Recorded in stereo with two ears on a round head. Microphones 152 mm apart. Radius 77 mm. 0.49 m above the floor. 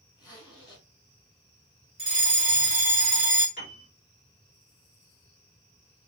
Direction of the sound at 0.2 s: 25° left (ahead or behind).